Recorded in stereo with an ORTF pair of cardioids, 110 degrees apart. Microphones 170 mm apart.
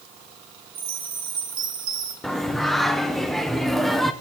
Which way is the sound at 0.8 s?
55° right.